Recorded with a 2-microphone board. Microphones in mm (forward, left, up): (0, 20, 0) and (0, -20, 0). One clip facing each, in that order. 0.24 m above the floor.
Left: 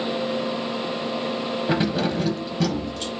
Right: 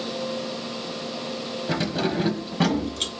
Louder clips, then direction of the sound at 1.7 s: Left 2 dB; 20° left (ahead or behind).